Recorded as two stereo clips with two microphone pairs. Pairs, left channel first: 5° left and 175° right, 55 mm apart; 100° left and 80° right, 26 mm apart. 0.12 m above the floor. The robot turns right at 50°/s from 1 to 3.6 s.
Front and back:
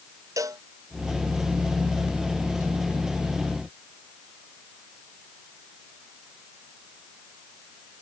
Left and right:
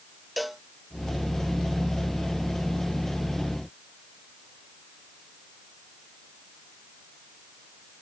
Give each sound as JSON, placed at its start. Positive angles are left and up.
{"t": 0.4, "sound": "a cowbell", "azimuth_deg": -175}